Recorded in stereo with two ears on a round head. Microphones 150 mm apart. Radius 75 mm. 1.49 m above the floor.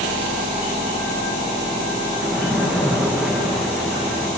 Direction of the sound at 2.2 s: Centre (ahead or behind).